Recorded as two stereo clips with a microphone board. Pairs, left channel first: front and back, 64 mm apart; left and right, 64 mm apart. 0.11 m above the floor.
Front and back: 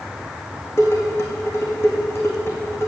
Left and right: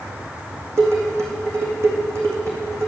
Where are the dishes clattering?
45° right, 3.5 m.